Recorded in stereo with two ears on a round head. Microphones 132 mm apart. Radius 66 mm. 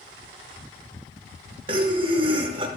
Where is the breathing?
35° right (ahead or behind), 0.9 m.